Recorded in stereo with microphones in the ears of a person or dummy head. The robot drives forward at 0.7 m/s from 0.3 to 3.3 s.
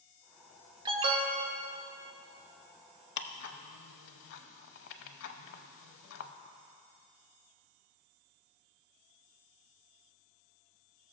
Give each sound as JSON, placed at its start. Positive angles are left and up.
{"t": 0.8, "sound": "an alarm", "side_deg": -25, "distance_m": 1.0}
{"t": 3.2, "sound": "ticking", "side_deg": 60, "distance_m": 0.7}